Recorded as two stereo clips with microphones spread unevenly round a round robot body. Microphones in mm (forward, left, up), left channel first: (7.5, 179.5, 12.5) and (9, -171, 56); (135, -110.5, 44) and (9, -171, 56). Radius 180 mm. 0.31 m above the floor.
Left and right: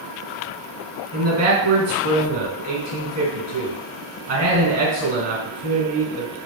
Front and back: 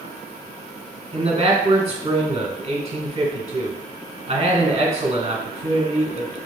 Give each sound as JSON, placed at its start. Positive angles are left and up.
{"t": 1.1, "sound": "a man speaking", "azimuth_deg": -130, "distance_m": 1.2}